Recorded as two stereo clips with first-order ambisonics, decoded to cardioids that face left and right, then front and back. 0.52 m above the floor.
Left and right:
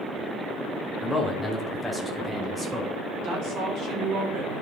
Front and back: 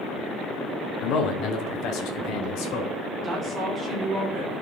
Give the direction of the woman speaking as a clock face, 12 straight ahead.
4 o'clock.